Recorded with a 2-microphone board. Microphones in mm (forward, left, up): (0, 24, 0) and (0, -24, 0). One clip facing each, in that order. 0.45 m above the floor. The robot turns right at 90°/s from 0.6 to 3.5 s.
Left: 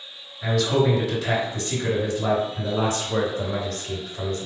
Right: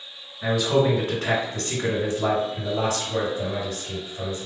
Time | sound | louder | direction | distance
0.4 | a man speaking | even | 160° right | 2.0 m